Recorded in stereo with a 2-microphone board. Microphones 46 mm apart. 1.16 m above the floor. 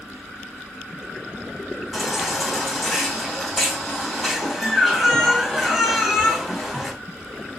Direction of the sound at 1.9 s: 5° left (ahead or behind).